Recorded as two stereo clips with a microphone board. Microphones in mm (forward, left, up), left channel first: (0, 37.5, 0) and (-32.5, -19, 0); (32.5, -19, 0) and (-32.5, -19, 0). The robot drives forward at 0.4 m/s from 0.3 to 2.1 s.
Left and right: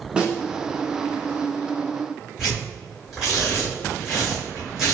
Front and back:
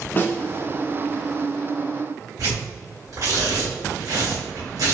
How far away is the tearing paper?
About 1.7 m.